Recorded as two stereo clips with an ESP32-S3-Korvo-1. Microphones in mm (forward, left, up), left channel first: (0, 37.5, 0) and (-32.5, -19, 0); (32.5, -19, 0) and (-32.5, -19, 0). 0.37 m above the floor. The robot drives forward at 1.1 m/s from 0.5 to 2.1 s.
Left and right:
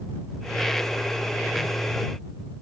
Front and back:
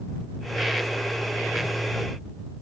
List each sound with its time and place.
Only background noise.